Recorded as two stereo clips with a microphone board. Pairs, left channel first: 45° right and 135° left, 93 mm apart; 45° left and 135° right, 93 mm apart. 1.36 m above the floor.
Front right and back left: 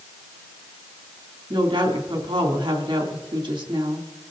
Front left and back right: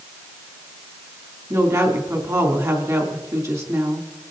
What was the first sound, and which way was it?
A woman speaking, 170° left.